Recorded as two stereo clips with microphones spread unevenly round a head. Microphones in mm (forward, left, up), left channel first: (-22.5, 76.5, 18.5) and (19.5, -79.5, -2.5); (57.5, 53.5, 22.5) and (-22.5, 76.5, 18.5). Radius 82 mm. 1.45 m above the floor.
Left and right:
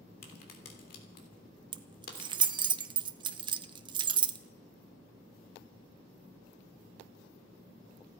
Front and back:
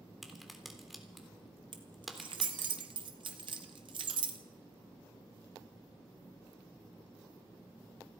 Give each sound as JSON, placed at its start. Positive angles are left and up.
{"t": 0.2, "sound": "a crack", "azimuth_deg": 75, "distance_m": 3.5}
{"t": 1.7, "sound": "keys jangling", "azimuth_deg": -140, "distance_m": 0.7}